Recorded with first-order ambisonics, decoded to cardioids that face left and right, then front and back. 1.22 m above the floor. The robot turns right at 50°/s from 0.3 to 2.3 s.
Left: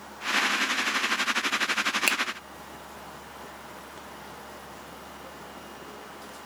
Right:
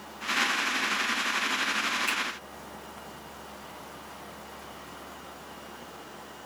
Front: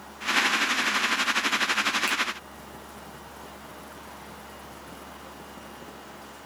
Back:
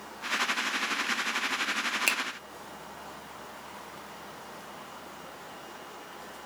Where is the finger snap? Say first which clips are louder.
Left 4 dB, even; 120° left, 0.7 m; by 2.2 s 125° left, 0.7 m.